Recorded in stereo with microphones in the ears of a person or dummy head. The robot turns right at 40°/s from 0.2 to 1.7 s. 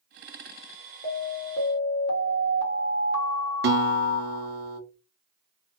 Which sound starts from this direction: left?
An alarm, at 1.0 s.